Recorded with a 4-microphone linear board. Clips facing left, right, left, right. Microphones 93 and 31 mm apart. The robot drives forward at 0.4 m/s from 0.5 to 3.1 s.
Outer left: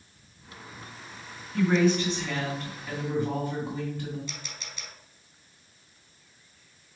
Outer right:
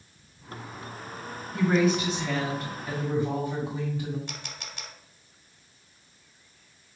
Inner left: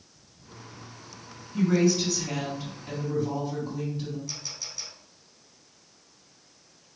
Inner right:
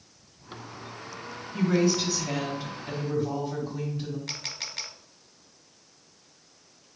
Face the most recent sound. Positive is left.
turn(degrees=-80)